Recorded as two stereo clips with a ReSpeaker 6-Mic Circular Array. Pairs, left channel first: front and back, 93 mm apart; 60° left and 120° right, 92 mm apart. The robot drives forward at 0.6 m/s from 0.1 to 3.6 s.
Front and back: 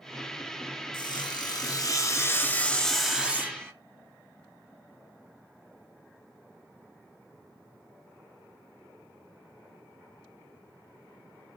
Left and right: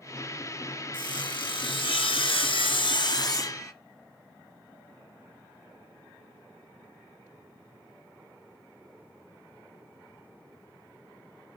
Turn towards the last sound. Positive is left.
turn(degrees=115)